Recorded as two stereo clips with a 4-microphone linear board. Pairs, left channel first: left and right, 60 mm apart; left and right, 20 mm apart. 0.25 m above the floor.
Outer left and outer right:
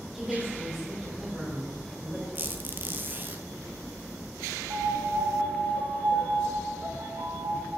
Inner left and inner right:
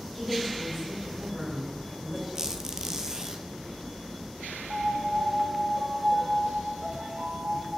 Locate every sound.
0.1 s a woman speaking: centre (ahead or behind), 3.5 m
2.4 s a squeak: 35° right (ahead or behind), 1.0 m
4.7 s a piano: 65° right (ahead or behind), 2 m